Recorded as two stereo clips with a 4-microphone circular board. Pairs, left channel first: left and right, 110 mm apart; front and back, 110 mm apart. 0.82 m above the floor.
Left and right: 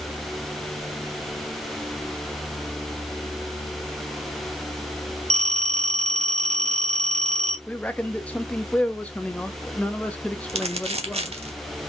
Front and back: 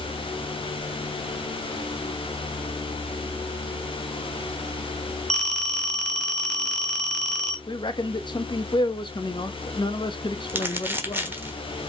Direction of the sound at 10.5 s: 110° right.